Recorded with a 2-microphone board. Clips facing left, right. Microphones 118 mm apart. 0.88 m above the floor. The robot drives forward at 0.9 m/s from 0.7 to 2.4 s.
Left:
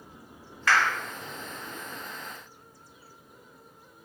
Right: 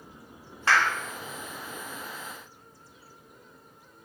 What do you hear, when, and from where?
0.7 s a clap: 30° right (ahead or behind), 1.3 m